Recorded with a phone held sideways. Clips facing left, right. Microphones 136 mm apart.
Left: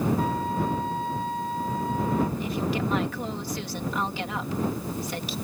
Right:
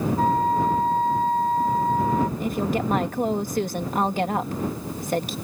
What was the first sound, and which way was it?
A flute, 45° right (ahead or behind).